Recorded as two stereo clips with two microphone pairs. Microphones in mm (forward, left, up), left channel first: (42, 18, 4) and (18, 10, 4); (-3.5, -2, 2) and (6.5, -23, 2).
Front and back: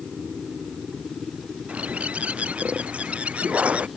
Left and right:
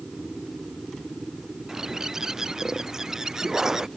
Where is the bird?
135° right.